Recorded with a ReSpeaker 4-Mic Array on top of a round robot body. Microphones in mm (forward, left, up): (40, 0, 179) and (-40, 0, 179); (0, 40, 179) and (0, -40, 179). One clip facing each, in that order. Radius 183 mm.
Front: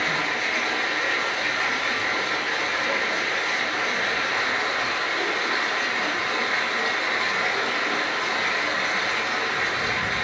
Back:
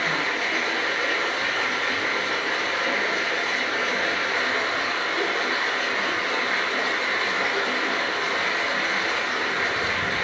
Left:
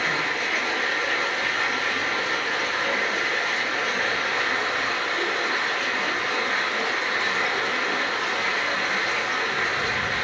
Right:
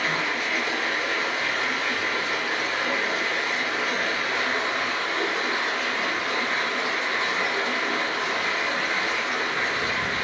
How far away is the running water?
About 0.9 m.